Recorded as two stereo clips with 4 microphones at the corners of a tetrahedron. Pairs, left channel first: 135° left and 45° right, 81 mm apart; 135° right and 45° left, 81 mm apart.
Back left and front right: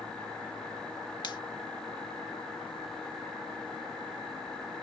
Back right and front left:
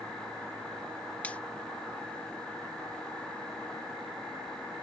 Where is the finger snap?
155° left.